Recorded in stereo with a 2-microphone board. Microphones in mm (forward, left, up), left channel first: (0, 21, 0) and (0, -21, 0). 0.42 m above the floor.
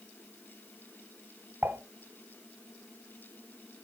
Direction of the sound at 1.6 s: 75° right (ahead or behind).